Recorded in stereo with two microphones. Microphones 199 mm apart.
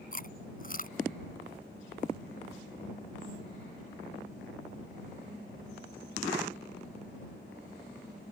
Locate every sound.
0.1 s chewing: 45° left (ahead or behind)